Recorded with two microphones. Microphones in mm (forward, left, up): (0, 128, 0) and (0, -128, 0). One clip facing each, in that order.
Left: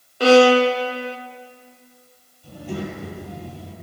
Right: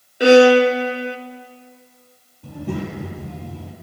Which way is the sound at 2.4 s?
65° right (ahead or behind).